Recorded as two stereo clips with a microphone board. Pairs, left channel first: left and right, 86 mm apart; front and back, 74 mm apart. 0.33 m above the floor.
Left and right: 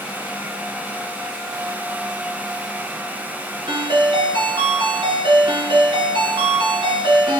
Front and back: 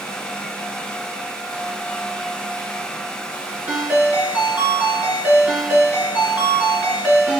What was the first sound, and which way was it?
A ringtone, 115° right.